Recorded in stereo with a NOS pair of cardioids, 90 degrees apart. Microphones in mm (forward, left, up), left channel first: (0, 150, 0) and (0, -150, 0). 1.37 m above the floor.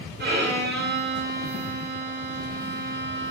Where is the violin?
35° right, 2.5 m.